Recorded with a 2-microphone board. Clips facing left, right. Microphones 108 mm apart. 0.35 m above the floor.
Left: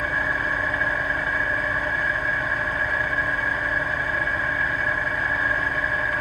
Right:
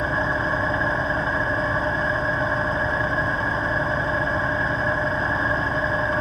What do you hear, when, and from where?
0.0 s an engine running: 25° right (ahead or behind), 1.1 m